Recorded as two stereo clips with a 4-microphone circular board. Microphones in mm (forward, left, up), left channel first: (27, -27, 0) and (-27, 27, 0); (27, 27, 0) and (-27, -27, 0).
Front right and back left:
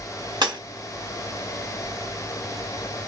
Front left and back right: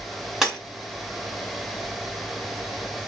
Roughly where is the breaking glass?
Behind left.